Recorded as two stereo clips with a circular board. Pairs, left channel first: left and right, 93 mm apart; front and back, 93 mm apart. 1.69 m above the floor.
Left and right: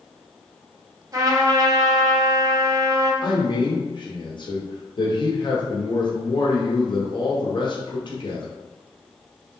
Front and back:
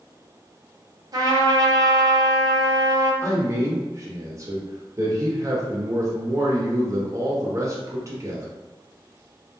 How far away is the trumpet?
About 0.7 m.